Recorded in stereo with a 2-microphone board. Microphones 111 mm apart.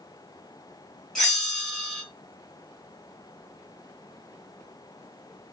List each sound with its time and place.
1.1 s a bell: 5° left (ahead or behind), 1.0 m